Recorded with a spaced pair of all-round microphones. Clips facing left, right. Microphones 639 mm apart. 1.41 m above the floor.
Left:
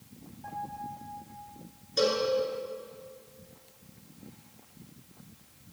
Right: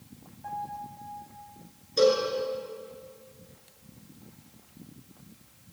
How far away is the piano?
About 7 m.